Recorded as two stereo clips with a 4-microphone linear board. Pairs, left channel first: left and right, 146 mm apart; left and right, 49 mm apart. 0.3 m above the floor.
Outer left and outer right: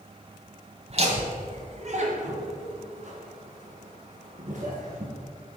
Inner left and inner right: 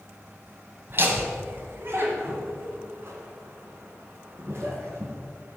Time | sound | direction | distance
0.9 | laughter | 45° right (ahead or behind) | 1.5 m